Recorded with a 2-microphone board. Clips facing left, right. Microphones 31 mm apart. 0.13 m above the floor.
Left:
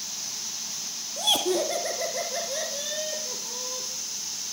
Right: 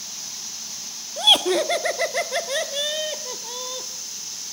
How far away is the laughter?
About 1.3 m.